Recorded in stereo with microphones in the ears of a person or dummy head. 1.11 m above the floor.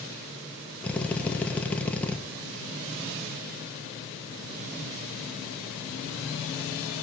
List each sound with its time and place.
0.8 s a drill: 5° left (ahead or behind), 1.1 m